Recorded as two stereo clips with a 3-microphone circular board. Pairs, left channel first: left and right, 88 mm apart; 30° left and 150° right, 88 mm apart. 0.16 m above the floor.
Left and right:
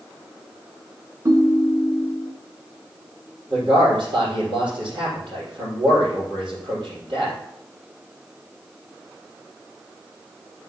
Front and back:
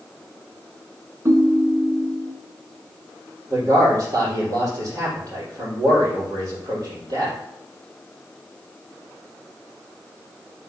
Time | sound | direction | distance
1.2 | a ringtone | 115° right | 0.9 m
3.5 | a man speaking | 110° right | 4 m